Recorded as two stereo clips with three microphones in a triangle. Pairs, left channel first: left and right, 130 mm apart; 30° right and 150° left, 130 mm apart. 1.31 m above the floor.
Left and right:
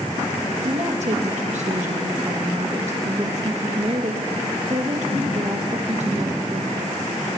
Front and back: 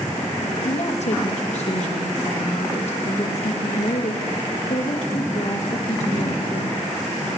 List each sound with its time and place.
0.6 s a woman speaking: 60° right, 1.9 m